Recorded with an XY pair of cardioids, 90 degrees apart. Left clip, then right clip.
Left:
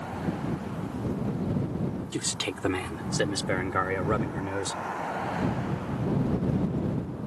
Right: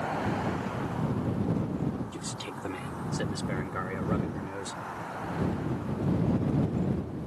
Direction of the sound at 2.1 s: 70° left.